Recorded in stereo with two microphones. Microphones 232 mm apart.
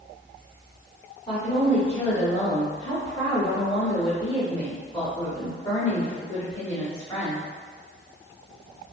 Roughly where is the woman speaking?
Left.